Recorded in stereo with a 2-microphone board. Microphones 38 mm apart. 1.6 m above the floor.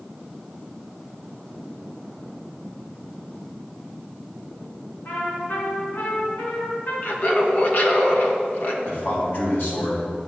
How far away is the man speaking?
About 3 m.